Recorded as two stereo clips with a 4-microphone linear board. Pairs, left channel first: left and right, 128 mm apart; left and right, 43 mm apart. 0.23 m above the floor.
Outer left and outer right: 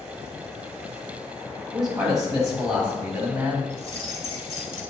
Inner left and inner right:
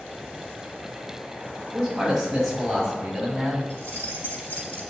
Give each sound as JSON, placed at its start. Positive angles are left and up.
{"t": 1.7, "sound": "a man speaking", "side_deg": -5, "distance_m": 1.3}
{"t": 3.7, "sound": "keys jangling", "side_deg": 50, "distance_m": 1.2}